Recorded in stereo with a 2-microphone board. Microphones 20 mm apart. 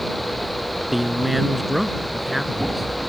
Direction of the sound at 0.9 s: 10° right (ahead or behind).